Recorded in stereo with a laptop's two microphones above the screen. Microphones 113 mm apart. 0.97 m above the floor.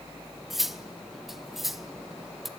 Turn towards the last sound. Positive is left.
turn(degrees=0)  # may be behind; listen again after turning